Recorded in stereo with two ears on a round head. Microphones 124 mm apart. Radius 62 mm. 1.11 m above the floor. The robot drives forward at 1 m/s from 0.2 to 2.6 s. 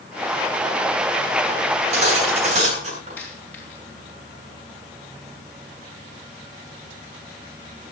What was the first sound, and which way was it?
Cutlery clinking, 40° right (ahead or behind).